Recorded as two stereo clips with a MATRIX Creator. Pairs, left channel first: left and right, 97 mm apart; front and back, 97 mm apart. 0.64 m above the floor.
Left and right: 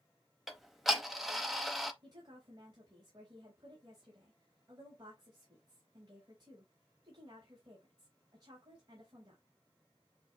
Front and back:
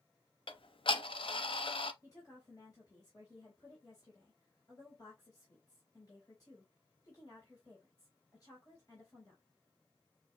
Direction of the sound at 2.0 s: 50° right.